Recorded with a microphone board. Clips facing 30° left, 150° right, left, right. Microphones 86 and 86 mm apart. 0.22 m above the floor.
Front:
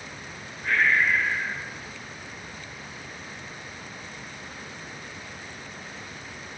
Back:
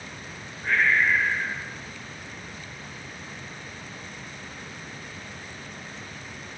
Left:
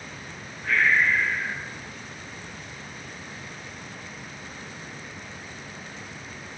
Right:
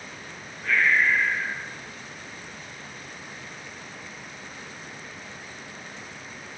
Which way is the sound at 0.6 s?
75° right.